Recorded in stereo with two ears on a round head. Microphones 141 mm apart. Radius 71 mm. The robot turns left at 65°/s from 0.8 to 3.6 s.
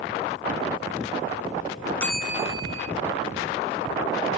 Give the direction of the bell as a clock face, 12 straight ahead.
12 o'clock.